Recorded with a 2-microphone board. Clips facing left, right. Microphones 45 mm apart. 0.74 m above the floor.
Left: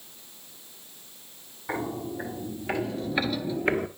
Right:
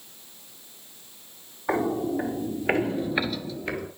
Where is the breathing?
I don't hear breathing.